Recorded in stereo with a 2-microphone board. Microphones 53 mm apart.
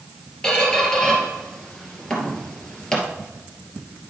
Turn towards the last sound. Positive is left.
turn(degrees=15)  # may be behind; listen again after turning